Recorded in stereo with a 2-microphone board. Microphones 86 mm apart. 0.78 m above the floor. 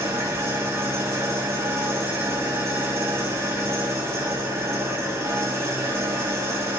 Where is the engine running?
30° right (ahead or behind), 0.8 m.